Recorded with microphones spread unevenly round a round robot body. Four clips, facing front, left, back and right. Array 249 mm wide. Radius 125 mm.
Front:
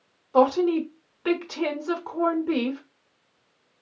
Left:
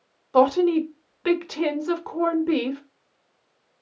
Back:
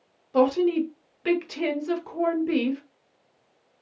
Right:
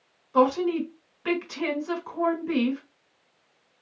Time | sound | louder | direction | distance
0.3 | a woman speaking | left 4 dB, front 1 dB | 105° left | 1.0 m